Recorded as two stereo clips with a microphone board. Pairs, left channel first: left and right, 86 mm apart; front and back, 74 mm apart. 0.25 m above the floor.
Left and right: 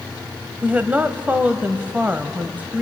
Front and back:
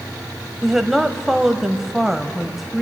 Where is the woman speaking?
100° right, 0.9 m.